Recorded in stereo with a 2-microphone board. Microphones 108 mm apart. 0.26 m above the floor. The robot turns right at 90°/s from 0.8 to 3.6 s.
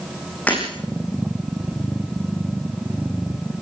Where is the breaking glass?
15° left (ahead or behind), 9.5 m.